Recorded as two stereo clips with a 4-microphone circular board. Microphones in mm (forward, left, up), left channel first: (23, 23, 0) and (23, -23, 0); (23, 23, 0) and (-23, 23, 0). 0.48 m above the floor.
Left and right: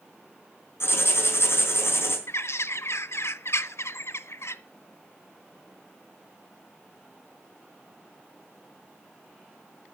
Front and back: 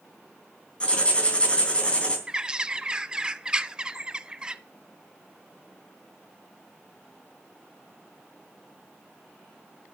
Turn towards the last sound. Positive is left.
turn(degrees=110)